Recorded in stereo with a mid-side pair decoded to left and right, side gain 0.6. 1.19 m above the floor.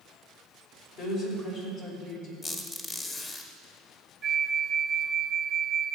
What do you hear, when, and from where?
1.0 s a woman speaking: 65° left, 5 m
2.4 s a squeak: 35° left, 1.8 m
4.2 s a flute: 35° right, 0.6 m